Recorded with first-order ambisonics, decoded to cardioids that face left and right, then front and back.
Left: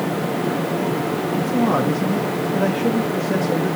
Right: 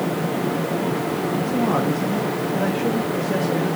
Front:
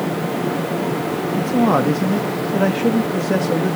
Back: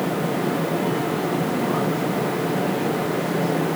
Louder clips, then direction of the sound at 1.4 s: Left 3 dB, front 6 dB; 10° left.